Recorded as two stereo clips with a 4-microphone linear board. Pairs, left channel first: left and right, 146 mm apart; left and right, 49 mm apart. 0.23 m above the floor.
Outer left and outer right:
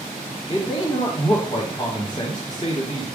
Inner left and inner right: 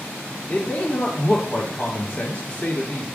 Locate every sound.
0.5 s a man speaking: 35° left (ahead or behind), 1.7 m